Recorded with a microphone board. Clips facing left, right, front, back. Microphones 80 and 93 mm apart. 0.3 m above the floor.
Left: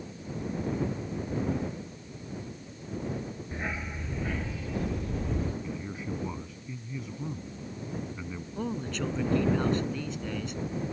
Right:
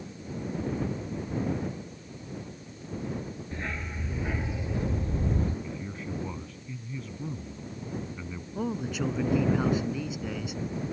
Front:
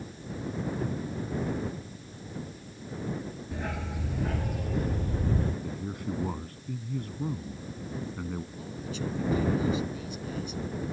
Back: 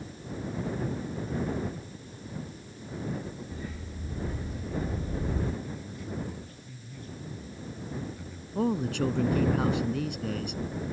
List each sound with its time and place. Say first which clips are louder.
3.5 s a dog barking: left 1 dB, front 5 dB; 20° left; by 5.5 s 40° right
5.6 s a man speaking: left 1 dB, front 4 dB; 10° left
8.6 s a man speaking: right 2 dB, back 9 dB; 175° right